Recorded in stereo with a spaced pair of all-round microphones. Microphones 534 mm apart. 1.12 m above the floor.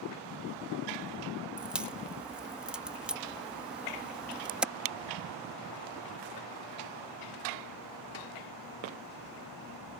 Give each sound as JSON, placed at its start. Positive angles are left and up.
{"t": 1.6, "sound": "a crack", "side_deg": 0}